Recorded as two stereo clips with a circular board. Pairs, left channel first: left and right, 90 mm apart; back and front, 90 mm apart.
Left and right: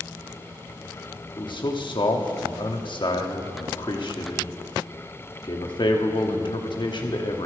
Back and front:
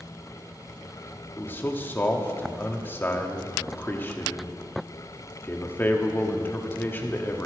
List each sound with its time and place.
1.4 s a man speaking: 115° left, 1.2 m